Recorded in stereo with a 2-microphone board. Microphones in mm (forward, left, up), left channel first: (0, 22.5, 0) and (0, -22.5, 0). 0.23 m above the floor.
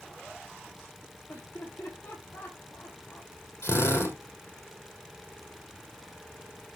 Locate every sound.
1.3 s laughter: 80° left, 7 m; by 3.3 s 75° left (ahead or behind), 5 m
3.6 s a drill: 80° left, 4 m